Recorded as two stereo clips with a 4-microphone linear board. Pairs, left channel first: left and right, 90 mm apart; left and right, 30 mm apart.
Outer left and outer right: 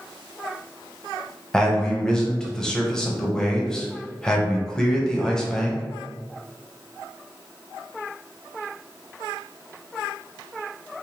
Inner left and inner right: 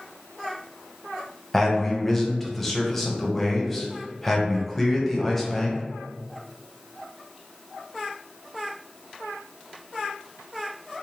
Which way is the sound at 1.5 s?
10° left (ahead or behind).